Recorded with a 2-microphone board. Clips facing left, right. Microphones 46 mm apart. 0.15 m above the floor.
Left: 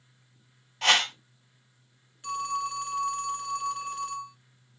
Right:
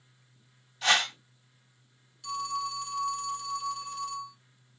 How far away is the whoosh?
About 1.1 m.